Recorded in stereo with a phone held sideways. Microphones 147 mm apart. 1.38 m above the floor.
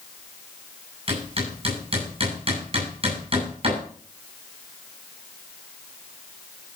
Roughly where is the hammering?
Right.